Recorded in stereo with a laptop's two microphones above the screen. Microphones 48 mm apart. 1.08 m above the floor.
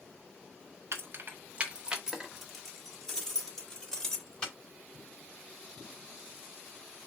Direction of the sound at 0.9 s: 65° right (ahead or behind).